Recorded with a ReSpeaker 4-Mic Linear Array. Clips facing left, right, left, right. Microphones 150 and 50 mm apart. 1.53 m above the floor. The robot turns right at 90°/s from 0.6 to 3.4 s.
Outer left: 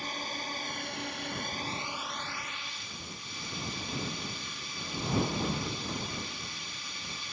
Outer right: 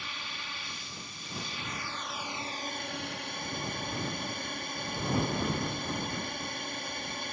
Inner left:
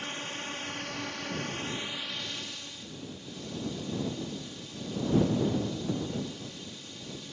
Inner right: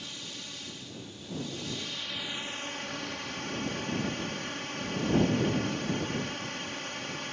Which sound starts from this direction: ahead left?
A drone, at 0.0 s.